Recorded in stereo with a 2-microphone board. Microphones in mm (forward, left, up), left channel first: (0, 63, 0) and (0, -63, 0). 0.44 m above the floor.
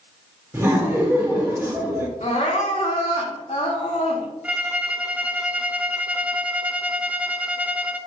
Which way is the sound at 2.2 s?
70° left (ahead or behind).